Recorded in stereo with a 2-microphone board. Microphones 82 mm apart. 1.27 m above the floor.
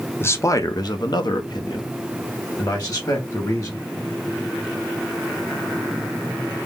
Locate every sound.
0.2 s a man speaking: 25° left (ahead or behind), 0.7 m; by 3.8 s 45° left (ahead or behind), 2 m